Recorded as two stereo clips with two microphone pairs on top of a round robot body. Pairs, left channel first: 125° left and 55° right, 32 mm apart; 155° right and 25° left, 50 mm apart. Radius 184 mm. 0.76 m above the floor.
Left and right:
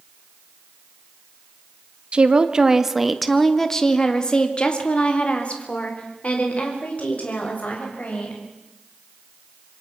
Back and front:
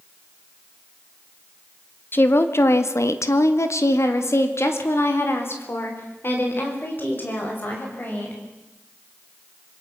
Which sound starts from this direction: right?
A woman speaking, at 2.1 s.